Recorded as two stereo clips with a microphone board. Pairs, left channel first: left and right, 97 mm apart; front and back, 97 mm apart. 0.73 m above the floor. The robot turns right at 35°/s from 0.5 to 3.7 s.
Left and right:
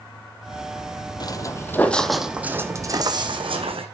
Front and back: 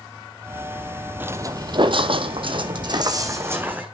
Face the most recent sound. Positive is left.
turn(degrees=-105)